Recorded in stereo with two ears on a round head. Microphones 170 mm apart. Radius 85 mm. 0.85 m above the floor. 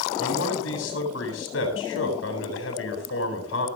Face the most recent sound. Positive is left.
turn(degrees=75)  # may be behind; listen again after turning